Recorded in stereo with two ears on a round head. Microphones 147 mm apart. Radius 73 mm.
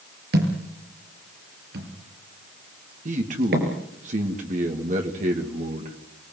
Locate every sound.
0.3 s a thud: 65° right (ahead or behind), 5.5 m
3.0 s a man speaking: 50° right (ahead or behind), 2.5 m